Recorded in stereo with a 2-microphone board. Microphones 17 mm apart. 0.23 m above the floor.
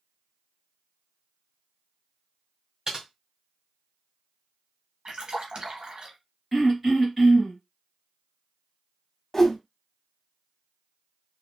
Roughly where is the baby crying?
I don't hear a baby crying.